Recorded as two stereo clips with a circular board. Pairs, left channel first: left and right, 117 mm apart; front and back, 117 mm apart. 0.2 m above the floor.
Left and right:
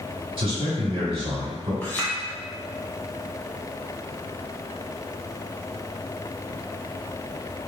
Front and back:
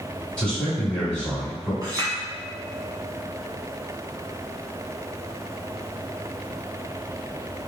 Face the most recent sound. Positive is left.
turn(degrees=155)